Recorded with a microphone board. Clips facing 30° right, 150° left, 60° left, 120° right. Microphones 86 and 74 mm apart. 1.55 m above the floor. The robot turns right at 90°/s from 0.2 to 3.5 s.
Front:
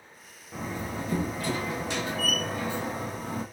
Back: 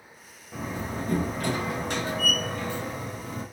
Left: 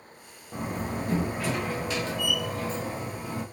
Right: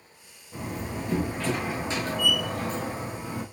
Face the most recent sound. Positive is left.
turn(degrees=-30)